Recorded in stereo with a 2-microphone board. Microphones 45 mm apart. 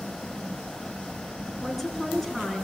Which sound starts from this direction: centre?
A woman speaking, at 1.6 s.